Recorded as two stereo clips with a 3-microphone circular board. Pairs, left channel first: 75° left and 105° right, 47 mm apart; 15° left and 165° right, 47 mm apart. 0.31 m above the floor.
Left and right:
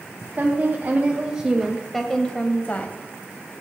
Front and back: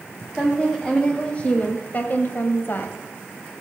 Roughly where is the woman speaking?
Ahead right.